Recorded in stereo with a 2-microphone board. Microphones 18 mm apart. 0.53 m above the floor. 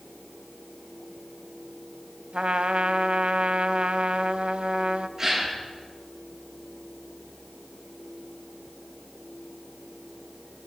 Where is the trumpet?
75° right (ahead or behind), 1.0 m.